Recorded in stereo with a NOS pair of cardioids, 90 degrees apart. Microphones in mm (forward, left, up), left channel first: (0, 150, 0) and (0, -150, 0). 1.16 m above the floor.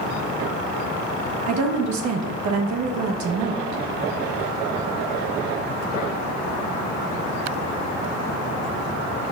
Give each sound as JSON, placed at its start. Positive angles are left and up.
{"t": 1.5, "sound": "a woman speaking", "azimuth_deg": -70, "distance_m": 1.1}